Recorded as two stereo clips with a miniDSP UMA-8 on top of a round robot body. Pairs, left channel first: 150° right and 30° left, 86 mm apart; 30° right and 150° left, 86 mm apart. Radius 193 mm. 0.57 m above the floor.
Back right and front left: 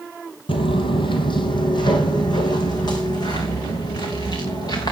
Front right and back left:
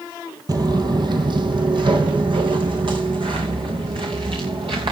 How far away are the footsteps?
About 1.0 m.